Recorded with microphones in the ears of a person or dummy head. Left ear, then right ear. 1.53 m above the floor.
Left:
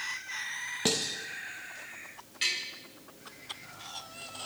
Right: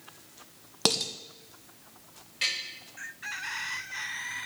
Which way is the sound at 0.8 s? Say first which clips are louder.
Right 3 dB; 45° right (ahead or behind).